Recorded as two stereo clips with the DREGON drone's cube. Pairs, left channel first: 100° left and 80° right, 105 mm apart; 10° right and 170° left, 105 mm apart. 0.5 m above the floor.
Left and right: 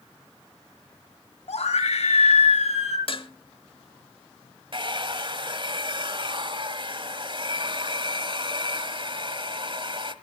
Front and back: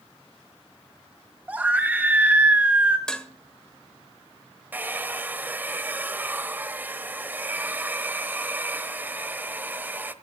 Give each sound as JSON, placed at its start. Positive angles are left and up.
{"t": 1.5, "sound": "a scream", "azimuth_deg": 95, "distance_m": 3.0}
{"t": 3.1, "sound": "dishes clattering", "azimuth_deg": 70, "distance_m": 1.6}
{"t": 4.7, "sound": "a hair dryer", "azimuth_deg": -115, "distance_m": 1.0}